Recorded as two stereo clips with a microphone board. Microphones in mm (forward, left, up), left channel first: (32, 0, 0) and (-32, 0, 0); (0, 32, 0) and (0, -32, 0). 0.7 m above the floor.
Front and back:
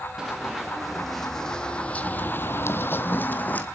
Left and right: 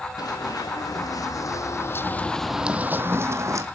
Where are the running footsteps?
95° left, 2.5 m; by 3.6 s 60° right, 1.6 m.